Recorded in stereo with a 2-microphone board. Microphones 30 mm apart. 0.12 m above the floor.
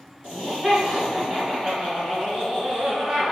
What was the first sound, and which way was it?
Laughter, 30° right (ahead or behind).